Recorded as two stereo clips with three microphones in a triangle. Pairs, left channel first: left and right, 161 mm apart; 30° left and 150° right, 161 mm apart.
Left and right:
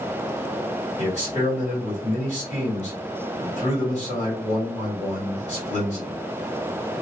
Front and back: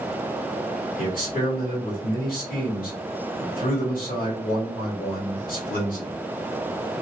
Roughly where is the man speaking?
Ahead left.